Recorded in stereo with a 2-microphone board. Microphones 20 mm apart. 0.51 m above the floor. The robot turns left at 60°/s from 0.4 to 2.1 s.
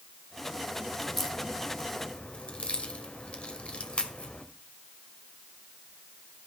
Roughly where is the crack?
Centre.